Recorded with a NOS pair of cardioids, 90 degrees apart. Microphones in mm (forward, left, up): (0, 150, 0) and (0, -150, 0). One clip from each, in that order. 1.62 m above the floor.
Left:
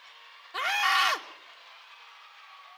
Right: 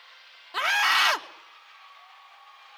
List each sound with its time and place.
0.5 s a scream: 35° right, 3 m